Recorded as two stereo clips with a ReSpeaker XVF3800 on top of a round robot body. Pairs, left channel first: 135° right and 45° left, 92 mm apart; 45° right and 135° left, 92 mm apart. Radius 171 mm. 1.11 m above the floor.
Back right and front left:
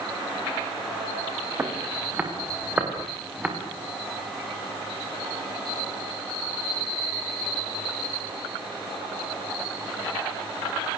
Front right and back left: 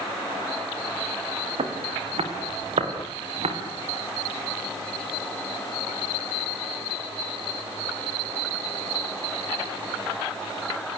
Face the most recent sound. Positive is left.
turn(degrees=125)